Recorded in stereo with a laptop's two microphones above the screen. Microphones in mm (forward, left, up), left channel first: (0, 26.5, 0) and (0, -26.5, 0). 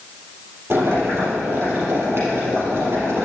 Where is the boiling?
55° right (ahead or behind), 4 m.